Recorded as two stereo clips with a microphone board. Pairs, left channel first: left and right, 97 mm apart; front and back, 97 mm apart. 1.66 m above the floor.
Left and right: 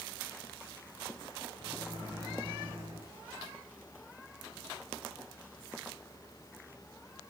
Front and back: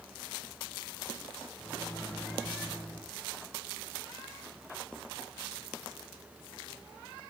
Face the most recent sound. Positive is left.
turn(degrees=-75)